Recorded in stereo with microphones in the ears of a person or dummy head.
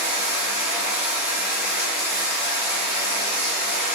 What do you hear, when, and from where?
0.0 s running water: 15° right (ahead or behind), 2.5 m